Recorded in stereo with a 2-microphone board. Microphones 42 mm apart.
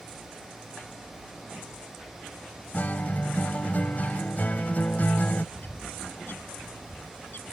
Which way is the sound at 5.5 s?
50° left (ahead or behind).